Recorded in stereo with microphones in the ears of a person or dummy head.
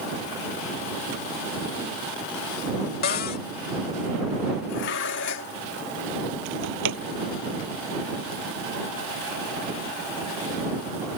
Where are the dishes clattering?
60° left (ahead or behind).